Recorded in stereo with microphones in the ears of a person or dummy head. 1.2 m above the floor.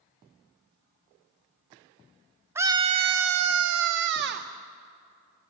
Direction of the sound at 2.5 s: 10° right (ahead or behind).